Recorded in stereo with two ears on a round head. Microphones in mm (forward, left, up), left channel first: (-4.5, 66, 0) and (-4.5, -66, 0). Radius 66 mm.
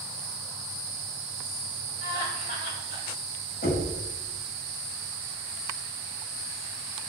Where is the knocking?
70° left (ahead or behind), 6.5 m.